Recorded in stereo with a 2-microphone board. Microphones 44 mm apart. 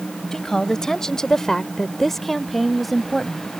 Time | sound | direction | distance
0.3 | a woman speaking | 10° left (ahead or behind) | ?